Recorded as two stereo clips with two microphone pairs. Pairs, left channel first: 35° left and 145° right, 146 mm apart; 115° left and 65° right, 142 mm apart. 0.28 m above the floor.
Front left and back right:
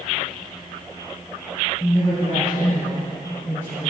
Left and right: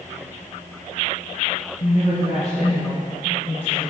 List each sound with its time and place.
1.8 s a woman speaking: 95° left, 2.5 m; by 3.9 s 70° left, 4 m